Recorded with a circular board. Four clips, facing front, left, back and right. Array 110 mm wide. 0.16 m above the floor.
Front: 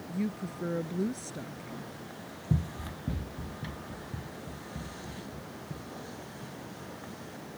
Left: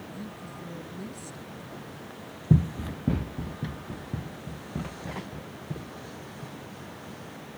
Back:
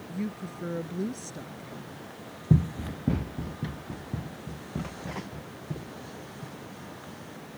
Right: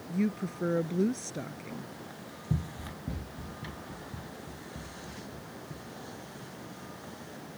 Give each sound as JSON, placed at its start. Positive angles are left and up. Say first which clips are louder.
{"t": 0.1, "sound": "a woman speaking", "louder": "right 9 dB, front 1 dB", "azimuth_deg": -85}
{"t": 2.5, "sound": "running footsteps", "louder": "left 11 dB, back 8 dB", "azimuth_deg": 125}